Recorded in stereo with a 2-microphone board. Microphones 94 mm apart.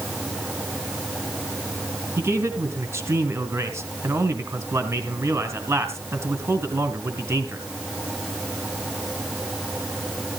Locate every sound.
2.2 s a man speaking: 30° right (ahead or behind), 2 m